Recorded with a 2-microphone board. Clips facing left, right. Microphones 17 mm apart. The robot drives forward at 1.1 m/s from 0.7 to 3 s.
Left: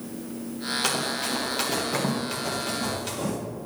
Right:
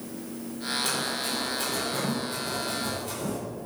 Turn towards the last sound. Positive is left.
turn(degrees=50)  # may be behind; listen again after turning